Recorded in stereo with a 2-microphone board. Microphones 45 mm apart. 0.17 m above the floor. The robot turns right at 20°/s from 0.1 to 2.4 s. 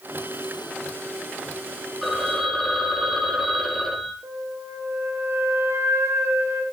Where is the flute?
75° right (ahead or behind), 7 m.